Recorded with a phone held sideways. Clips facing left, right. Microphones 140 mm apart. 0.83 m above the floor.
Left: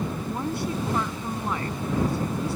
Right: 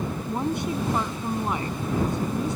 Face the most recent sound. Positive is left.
turn(degrees=-20)  # may be behind; listen again after turning